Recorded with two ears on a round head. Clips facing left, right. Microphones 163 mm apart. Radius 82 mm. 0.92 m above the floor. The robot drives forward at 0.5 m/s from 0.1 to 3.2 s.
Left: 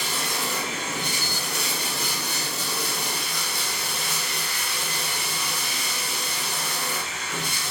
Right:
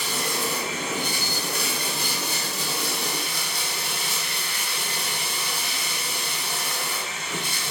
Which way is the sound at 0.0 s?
90° right.